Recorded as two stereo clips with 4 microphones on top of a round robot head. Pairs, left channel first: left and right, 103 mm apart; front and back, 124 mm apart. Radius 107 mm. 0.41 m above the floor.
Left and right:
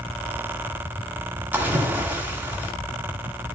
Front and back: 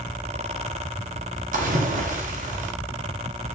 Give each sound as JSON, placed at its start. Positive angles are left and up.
{"t": 1.5, "sound": "a splash", "azimuth_deg": -165, "distance_m": 2.5}